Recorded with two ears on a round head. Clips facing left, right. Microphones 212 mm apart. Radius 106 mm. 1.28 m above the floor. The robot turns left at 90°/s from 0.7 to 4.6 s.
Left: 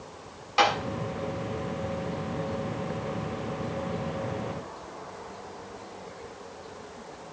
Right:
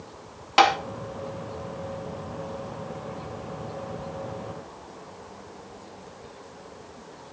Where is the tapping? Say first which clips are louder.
Right 4 dB; 70° right (ahead or behind), 1.7 m; by 0.8 s 75° right (ahead or behind), 1.7 m.